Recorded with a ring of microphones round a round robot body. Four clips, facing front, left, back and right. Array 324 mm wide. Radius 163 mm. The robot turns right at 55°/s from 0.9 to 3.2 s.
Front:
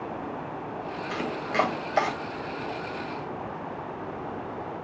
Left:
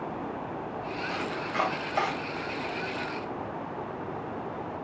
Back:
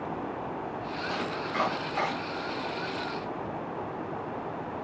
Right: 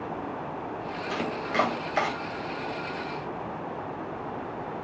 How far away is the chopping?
About 1.9 m.